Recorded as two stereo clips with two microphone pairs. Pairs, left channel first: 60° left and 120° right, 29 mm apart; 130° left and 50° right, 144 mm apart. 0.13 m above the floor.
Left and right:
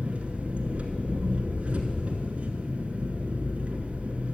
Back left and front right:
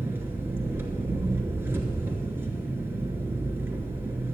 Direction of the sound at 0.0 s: 120° right.